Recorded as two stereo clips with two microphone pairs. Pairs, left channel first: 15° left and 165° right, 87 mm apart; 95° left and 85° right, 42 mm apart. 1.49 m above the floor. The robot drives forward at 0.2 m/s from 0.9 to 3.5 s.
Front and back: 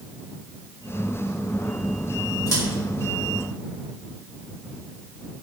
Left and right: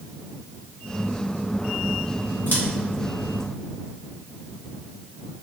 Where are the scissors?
55° left, 1.1 m; by 2.6 s 60° left, 1.1 m.